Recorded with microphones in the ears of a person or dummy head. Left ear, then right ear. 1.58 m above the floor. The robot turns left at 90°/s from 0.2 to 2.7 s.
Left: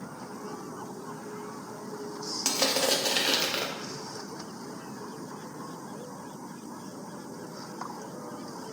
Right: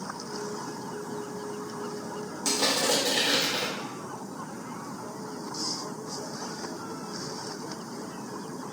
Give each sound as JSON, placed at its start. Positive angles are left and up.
{"t": 2.5, "sound": "crushing", "side_deg": 85, "distance_m": 0.9}